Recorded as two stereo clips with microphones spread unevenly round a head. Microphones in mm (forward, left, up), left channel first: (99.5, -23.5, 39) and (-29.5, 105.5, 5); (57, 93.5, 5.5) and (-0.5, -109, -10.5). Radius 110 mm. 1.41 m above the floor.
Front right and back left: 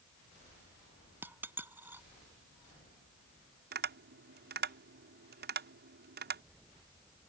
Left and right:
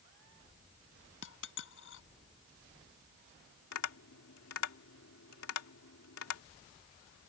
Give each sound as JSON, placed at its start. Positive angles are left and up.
{"t": 1.2, "sound": "a dropped coin", "azimuth_deg": 55}
{"t": 3.7, "sound": "tapping", "azimuth_deg": 105}